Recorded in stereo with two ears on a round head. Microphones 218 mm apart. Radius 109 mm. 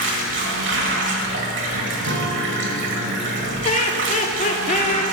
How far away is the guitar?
About 0.6 m.